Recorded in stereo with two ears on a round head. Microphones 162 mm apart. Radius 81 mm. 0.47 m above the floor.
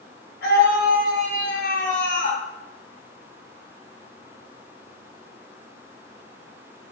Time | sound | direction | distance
0.4 | a scream | 60° left (ahead or behind) | 4.5 m